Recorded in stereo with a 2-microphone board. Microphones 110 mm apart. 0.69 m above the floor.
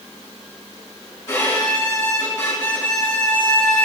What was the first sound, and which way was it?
A violin, 35° left (ahead or behind).